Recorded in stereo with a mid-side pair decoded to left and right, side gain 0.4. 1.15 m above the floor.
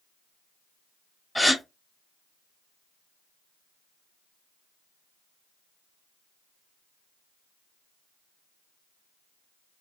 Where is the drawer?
I don't hear a drawer.